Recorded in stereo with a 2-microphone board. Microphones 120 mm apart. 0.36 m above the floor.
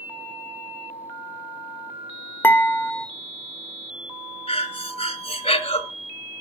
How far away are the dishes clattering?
About 0.7 m.